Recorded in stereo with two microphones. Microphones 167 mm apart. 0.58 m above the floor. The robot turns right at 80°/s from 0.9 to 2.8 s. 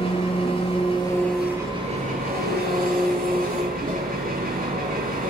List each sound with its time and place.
0.0 s an engine running: 140° left, 9.5 m; by 5.3 s 65° right, 9.5 m